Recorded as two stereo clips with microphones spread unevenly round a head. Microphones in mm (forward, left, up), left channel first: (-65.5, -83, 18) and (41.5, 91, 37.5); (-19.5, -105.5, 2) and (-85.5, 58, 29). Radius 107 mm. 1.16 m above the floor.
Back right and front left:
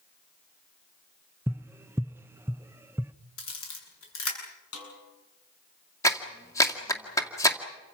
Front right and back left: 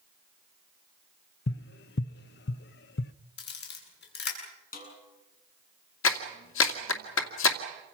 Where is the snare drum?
110° right, 8.5 m.